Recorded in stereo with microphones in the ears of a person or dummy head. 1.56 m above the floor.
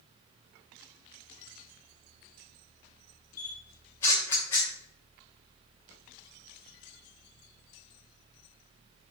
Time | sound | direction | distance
3.4 | a camera shutter | 15° left (ahead or behind) | 1.1 m